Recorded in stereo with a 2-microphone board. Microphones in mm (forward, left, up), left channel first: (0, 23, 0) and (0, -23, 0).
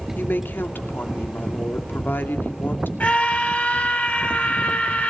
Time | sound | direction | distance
0.1 | a woman speaking | 50° left (ahead or behind) | 2.5 m
3.0 | a scream | 40° left (ahead or behind) | 7 m